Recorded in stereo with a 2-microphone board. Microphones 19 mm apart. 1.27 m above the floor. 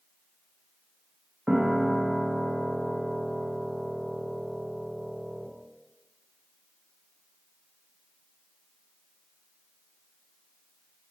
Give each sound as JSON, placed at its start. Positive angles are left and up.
{"t": 1.5, "sound": "a piano", "side_deg": -70, "distance_m": 1.0}